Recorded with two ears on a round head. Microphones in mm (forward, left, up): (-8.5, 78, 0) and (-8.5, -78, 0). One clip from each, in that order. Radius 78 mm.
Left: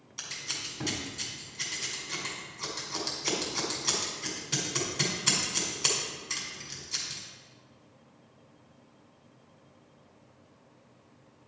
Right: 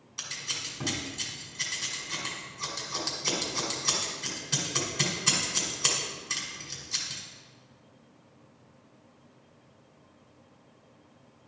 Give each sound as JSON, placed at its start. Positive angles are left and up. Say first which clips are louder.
{"t": 0.2, "sound": "scissors", "louder": "right 2 dB", "side_deg": 5, "distance_m": 1.8}